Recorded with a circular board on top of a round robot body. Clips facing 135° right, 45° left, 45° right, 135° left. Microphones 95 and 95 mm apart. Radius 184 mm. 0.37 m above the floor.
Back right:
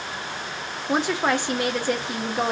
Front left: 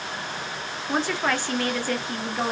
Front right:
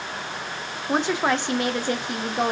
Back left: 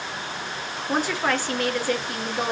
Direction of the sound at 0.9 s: 85° right.